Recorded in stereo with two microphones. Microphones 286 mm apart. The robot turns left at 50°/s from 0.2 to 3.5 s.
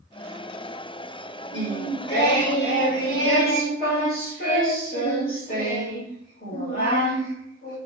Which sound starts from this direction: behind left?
Singing, at 1.5 s.